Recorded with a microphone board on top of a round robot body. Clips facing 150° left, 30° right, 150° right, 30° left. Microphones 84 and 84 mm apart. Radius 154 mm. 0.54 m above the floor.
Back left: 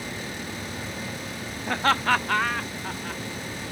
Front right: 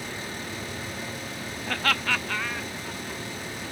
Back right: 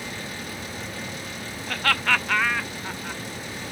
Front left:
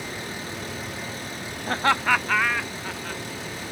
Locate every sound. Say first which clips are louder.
1.7 s laughter: back left 5 dB, front left 3 dB; 80° left; by 3.2 s 130° left